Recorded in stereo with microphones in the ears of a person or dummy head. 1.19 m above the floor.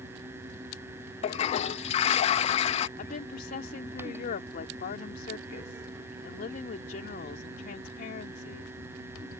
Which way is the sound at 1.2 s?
40° left (ahead or behind).